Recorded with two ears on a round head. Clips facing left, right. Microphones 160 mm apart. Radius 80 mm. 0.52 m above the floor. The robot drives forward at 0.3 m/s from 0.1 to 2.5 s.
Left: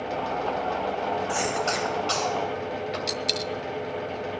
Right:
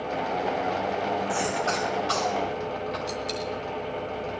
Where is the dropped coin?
70° left (ahead or behind), 0.7 m.